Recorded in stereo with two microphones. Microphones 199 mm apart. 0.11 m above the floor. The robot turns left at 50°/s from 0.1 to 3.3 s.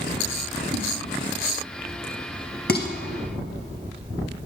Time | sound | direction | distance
0.7 | a whoosh | 35° right (ahead or behind) | 3 m
2.7 | dishes clattering | 55° left (ahead or behind) | 1.6 m